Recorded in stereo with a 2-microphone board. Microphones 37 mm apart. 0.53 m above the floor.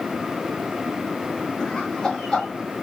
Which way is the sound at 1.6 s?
15° left (ahead or behind).